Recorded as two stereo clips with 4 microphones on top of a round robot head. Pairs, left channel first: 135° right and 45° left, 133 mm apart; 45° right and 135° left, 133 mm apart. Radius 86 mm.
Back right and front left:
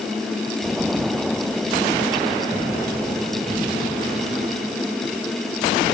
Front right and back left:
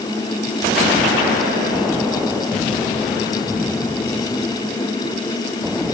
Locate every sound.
Only background noise.